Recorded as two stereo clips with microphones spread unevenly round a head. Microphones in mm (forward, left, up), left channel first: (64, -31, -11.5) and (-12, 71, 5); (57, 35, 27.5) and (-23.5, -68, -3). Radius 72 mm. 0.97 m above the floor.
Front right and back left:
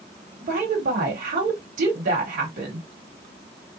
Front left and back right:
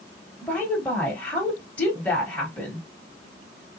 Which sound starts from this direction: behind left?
A woman speaking, at 0.4 s.